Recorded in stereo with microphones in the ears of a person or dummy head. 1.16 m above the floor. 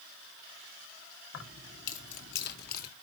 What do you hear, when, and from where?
1.3 s keys jangling: 85° left, 2 m; by 2.9 s 55° left (ahead or behind), 1.7 m